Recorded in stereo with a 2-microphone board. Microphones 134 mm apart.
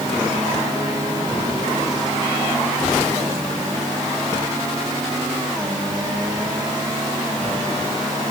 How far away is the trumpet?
No trumpet in this recording.